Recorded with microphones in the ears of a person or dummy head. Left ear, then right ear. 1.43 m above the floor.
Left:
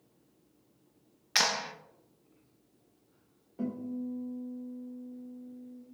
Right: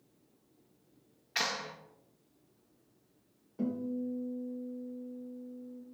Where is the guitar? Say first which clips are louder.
Right 1 dB; 5° left (ahead or behind), 3 m.